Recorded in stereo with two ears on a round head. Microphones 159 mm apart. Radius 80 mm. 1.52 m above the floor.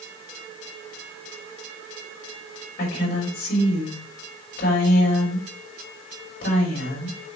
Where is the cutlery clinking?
No cutlery clinking in this recording.